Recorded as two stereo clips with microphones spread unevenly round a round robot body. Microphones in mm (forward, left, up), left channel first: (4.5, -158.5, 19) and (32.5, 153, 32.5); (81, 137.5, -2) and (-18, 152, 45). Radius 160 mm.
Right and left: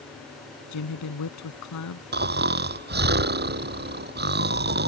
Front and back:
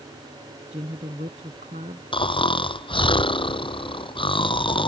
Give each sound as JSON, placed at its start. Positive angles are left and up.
{"t": 0.7, "sound": "a woman speaking", "azimuth_deg": -135}
{"t": 2.1, "sound": "snoring", "azimuth_deg": 25}